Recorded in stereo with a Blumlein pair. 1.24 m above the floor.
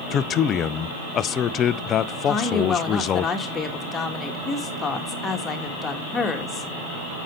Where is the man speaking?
30° left, 0.5 m.